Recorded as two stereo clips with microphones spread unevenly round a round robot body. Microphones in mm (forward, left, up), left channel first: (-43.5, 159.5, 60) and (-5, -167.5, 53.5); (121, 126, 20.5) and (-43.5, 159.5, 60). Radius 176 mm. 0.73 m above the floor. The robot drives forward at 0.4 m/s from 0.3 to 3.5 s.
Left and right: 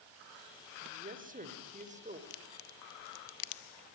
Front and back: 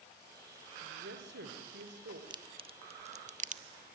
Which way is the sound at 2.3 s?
100° left.